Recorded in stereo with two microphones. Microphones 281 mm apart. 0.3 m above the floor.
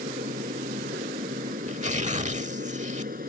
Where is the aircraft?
30° right (ahead or behind).